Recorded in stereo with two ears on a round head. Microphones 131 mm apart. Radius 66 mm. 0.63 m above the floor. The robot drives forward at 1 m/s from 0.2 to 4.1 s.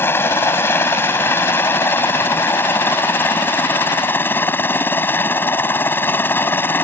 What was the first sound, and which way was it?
A helicopter, 15° left (ahead or behind).